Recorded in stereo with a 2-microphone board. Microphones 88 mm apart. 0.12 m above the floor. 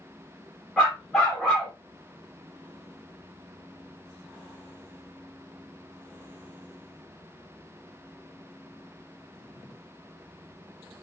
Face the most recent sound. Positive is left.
turn(degrees=0)  # may be behind; listen again after turning